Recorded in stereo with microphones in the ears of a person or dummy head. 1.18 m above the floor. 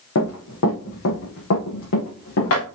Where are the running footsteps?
75° left (ahead or behind), 4.5 m.